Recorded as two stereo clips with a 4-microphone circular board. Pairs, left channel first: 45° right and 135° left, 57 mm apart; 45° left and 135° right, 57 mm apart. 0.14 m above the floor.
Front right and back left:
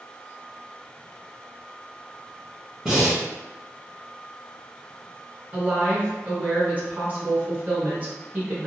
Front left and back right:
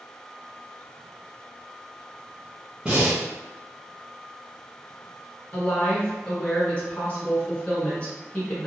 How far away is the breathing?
About 1.1 m.